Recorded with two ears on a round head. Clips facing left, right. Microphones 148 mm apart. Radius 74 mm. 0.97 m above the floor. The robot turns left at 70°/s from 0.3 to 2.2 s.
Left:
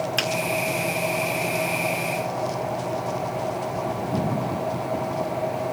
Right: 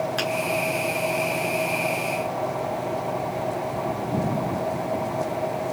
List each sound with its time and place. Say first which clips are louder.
0.2 s a finger snap: right 1 dB; 25° left (ahead or behind), 2.0 m